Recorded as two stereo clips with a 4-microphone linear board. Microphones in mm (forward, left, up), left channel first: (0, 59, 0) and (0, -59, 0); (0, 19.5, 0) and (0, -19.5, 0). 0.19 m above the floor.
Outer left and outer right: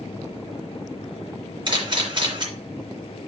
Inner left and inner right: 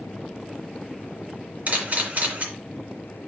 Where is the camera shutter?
45° right (ahead or behind), 2.5 m.